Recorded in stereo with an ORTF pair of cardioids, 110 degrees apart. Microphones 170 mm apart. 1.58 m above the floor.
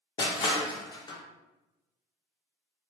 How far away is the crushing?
About 0.5 m.